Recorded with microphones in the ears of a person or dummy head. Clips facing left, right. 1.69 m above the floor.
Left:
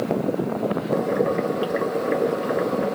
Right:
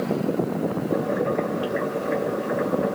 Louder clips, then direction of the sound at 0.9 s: Left 3 dB; 55° left (ahead or behind).